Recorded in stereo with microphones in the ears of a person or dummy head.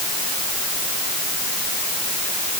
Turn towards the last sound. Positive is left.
No sound to turn to.